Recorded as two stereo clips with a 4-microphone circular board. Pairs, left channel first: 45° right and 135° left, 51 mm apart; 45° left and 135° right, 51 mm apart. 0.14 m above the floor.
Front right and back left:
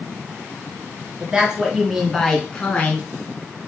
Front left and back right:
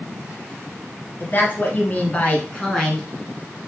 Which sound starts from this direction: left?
A woman speaking, at 1.2 s.